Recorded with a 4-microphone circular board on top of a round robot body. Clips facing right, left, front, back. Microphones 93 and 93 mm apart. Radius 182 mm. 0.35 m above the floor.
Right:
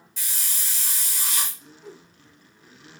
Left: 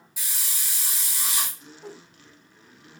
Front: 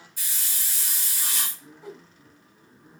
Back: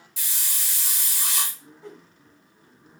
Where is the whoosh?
80° left, 1.4 m.